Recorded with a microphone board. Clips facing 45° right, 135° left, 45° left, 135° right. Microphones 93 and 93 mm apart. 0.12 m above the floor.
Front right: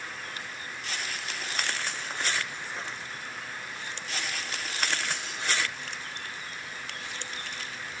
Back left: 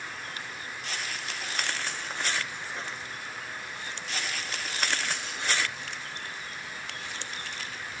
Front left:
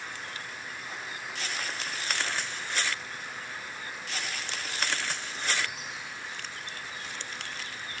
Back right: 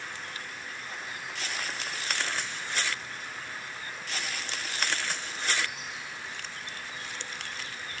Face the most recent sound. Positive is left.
No sound to turn to.